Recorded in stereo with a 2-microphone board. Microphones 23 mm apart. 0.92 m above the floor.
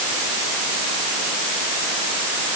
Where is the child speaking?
No child speaking in this recording.